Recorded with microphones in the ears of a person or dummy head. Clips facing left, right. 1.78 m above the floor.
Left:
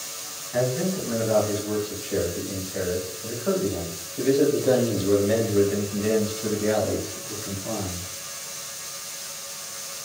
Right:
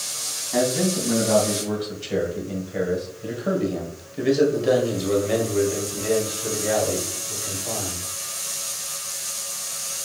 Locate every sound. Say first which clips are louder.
0.5 s a man speaking: right 3 dB; 65° right (ahead or behind), 2.5 m; by 8.1 s 45° left (ahead or behind), 2.5 m